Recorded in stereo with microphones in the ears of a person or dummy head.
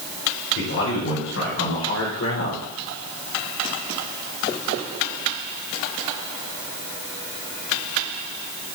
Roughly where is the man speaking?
Left.